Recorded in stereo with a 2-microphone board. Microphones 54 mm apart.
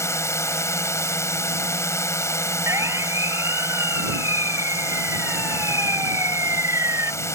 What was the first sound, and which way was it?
A drone, 60° left (ahead or behind).